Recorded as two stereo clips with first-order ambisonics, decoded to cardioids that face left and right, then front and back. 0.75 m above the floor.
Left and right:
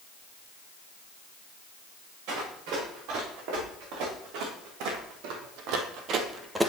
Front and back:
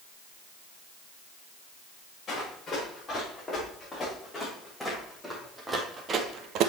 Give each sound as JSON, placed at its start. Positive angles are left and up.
{"t": 2.3, "sound": "running footsteps", "azimuth_deg": -70, "distance_m": 5.5}